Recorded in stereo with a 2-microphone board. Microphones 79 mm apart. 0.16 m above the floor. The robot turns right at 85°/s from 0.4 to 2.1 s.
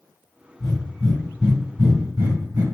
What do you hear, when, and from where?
0.6 s breathing: 35° left (ahead or behind), 1.6 m; by 2.6 s 20° right (ahead or behind), 1.6 m